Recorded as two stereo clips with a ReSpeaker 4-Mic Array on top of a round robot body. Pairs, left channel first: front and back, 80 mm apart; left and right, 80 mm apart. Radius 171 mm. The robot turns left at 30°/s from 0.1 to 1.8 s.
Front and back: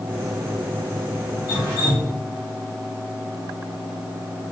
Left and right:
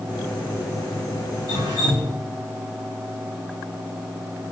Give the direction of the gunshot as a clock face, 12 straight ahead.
I don't hear a gunshot.